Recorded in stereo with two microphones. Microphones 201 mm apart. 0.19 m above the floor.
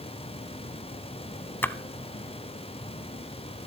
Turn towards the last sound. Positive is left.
turn(degrees=10)  # may be behind; listen again after turning